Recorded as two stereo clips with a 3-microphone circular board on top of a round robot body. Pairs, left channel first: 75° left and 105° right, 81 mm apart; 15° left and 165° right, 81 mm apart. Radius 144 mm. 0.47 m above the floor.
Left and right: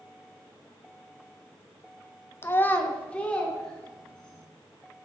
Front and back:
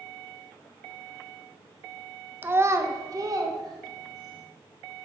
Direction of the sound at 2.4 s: 130° left.